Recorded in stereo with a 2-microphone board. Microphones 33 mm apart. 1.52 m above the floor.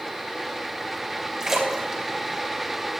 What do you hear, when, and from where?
1.4 s a splash: 15° right (ahead or behind), 3 m